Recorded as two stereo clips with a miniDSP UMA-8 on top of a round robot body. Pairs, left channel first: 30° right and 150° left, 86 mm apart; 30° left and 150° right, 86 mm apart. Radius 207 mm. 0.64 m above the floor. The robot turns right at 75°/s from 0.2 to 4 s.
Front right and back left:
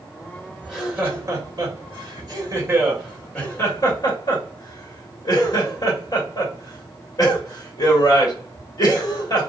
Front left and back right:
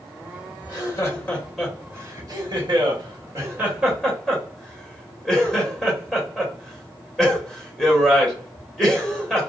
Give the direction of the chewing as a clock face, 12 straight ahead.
I don't hear chewing.